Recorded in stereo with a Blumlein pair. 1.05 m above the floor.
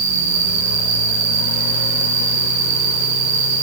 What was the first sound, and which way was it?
An insect, 55° right.